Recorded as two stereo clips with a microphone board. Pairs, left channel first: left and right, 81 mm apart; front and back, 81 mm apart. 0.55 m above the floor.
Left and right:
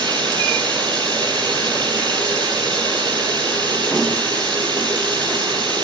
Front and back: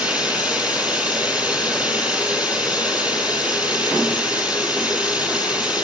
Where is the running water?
105° right, 6.5 m.